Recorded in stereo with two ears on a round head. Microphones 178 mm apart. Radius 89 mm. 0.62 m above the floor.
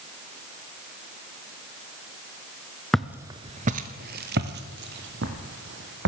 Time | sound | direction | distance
2.9 | footsteps | 5° left (ahead or behind) | 0.6 m